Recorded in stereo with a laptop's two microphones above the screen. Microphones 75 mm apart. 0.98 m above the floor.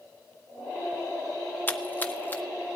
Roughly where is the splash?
Left.